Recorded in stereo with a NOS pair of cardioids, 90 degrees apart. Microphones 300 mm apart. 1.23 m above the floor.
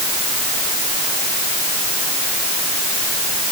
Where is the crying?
I don't hear crying.